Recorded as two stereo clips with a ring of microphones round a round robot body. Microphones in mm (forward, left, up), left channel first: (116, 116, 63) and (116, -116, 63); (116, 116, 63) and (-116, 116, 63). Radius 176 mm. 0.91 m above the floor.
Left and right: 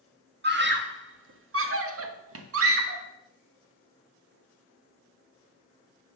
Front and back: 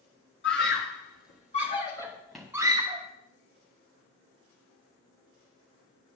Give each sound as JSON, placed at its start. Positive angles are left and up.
{"t": 0.4, "sound": "a scream", "azimuth_deg": -50, "distance_m": 2.0}